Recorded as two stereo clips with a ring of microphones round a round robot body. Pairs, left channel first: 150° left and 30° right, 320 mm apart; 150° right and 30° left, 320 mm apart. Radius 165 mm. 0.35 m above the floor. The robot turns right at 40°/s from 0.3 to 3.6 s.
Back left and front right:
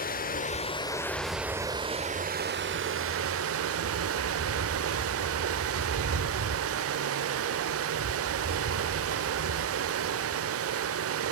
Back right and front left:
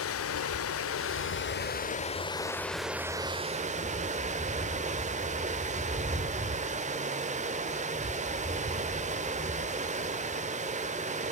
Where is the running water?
160° right, 1.1 m; by 11.3 s 30° right, 1.1 m.